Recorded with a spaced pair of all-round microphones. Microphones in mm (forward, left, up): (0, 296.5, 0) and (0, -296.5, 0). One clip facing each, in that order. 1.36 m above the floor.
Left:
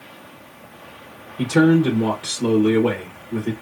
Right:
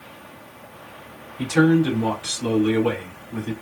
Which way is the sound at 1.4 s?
80° left.